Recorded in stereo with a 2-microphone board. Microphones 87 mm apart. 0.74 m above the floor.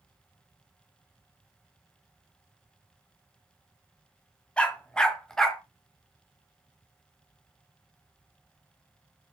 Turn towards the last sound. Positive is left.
turn(degrees=5)  # may be behind; listen again after turning